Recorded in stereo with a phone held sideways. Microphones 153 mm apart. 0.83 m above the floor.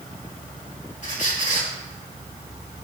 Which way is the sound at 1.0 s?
60° left (ahead or behind).